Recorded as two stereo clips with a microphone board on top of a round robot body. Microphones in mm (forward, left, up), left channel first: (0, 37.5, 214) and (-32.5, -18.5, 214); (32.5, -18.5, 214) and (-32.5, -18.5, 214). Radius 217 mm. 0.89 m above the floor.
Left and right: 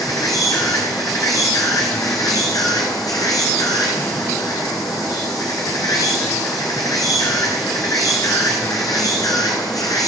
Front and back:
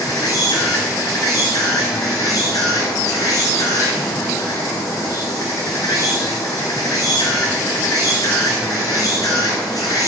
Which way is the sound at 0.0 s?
30° left.